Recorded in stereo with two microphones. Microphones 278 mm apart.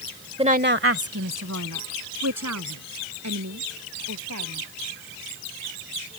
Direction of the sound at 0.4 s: 20° right (ahead or behind).